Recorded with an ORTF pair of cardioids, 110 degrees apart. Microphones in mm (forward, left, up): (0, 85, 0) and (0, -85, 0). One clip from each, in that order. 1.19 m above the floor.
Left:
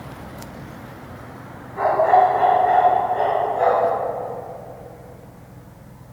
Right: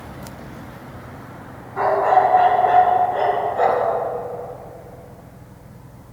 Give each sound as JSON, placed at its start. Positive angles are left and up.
{"t": 1.8, "sound": "a dog barking", "azimuth_deg": -35, "distance_m": 3.0}